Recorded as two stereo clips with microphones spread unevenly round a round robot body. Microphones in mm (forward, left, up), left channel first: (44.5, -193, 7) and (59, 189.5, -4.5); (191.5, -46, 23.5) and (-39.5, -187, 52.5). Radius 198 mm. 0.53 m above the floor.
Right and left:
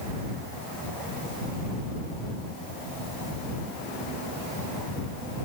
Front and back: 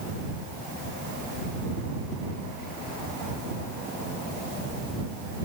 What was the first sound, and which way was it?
Only background noise.